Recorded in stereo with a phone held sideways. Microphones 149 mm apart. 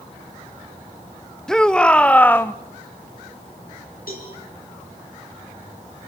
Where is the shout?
5° left (ahead or behind), 1.7 m; by 2.5 s 15° left (ahead or behind), 0.9 m.